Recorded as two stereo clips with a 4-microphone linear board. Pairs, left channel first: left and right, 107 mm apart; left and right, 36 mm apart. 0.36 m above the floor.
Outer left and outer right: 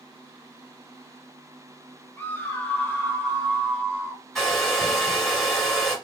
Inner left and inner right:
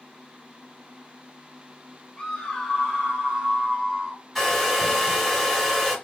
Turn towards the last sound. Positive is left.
turn(degrees=5)  # may be behind; listen again after turning